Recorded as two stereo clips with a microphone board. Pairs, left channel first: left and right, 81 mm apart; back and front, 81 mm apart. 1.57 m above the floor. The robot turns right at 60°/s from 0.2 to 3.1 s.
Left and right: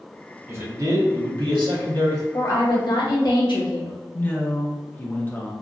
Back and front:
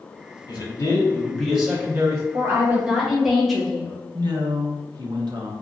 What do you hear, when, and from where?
0.5 s a man speaking: 150° right, 1.3 m; by 2.2 s 45° right, 1.3 m
2.3 s a woman speaking: 45° left, 1.1 m; by 4.0 s 90° left, 1.1 m
4.1 s a man speaking: 25° left, 0.7 m